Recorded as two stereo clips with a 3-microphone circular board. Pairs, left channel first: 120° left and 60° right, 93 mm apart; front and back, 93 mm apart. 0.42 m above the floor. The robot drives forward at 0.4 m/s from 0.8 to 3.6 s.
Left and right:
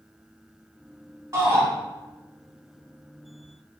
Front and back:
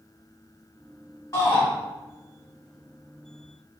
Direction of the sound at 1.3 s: 20° right.